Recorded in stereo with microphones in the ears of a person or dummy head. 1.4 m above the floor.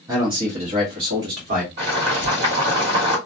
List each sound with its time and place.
0.1 s a man speaking: 15° right (ahead or behind), 0.8 m; by 1.7 s 50° right (ahead or behind), 1.3 m
1.8 s boiling: 35° right (ahead or behind), 1.5 m